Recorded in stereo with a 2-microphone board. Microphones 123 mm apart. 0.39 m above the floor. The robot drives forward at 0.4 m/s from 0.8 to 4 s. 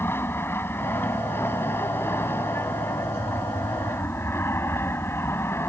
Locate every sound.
0.0 s an aircraft: 20° left (ahead or behind)